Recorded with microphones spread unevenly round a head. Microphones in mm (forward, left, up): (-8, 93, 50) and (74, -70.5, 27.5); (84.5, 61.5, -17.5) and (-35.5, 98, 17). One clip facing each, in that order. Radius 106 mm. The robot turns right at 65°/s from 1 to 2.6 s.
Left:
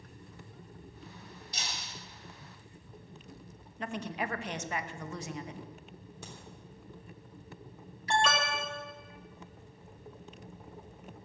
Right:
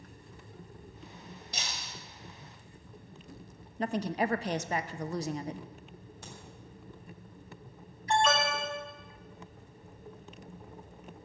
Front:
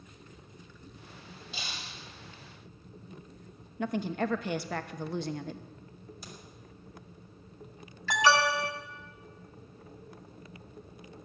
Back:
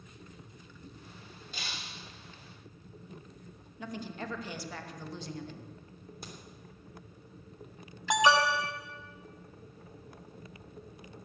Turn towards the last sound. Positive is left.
turn(degrees=95)